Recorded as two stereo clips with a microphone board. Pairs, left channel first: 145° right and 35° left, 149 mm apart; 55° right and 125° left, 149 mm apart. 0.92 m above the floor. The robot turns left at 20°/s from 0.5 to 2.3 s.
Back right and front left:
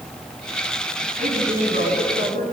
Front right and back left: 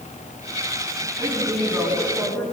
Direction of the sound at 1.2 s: 55° left.